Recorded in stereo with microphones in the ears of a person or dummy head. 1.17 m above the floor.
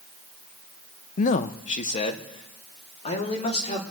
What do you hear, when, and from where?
1.2 s a man speaking: 45° left (ahead or behind), 0.5 m; by 3.8 s 40° left (ahead or behind), 2.5 m